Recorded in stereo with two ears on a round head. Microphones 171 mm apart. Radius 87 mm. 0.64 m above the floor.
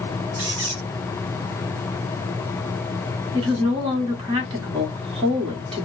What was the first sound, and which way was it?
A squeak, 70° right (ahead or behind).